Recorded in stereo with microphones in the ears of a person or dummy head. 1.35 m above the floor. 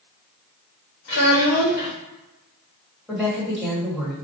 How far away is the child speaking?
About 1.1 m.